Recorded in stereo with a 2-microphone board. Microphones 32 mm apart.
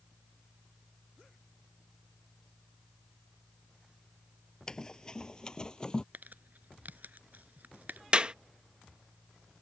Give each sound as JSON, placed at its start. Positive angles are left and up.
{"t": 4.7, "sound": "running footsteps", "side_deg": 20}
{"t": 6.1, "sound": "crumpling", "side_deg": -65}
{"t": 8.1, "sound": "a clap", "side_deg": -35}